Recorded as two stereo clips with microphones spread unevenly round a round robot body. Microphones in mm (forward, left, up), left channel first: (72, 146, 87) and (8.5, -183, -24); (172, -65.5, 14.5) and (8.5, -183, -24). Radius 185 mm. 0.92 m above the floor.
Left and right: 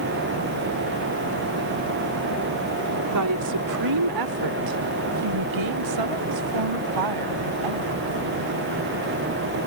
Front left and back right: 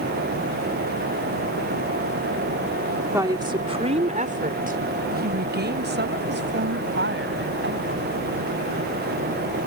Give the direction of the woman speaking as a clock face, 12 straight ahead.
2 o'clock.